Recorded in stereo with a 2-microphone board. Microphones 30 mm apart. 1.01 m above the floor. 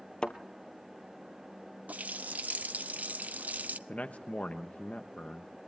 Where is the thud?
30° left (ahead or behind), 1.3 m.